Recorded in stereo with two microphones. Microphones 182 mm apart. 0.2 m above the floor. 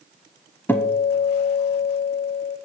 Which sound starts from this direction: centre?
A guitar, at 0.7 s.